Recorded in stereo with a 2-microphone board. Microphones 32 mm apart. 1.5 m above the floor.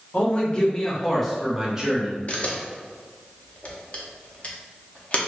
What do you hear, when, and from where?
0.1 s a man speaking: 40° left (ahead or behind), 1.1 m; by 2.2 s 30° right (ahead or behind), 0.9 m
2.3 s a camera shutter: 40° left (ahead or behind), 0.6 m